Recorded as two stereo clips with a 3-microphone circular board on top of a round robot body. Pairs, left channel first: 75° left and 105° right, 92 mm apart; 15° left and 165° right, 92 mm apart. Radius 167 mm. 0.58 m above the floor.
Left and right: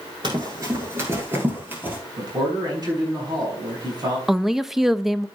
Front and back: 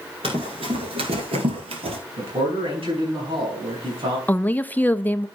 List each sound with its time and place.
0.2 s running footsteps: 145° right, 0.5 m; by 2.0 s 175° right, 1.3 m
2.2 s a man speaking: 150° right, 5 m
4.3 s a woman speaking: 20° right, 0.8 m